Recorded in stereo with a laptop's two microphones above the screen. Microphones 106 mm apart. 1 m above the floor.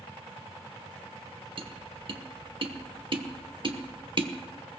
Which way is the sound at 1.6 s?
55° right (ahead or behind).